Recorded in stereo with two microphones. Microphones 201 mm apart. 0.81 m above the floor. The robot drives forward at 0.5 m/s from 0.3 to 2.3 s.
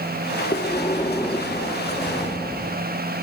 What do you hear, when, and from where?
0.5 s breathing: 30° left (ahead or behind), 0.8 m; by 2.8 s 15° left (ahead or behind), 1.6 m